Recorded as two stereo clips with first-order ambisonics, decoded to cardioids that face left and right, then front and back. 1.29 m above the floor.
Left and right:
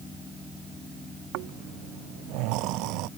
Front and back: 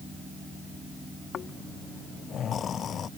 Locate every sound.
1.3 s snoring: 60° right